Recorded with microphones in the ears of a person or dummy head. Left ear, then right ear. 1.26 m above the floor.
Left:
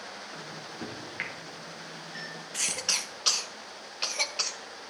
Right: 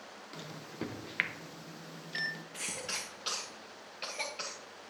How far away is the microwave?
About 0.9 m.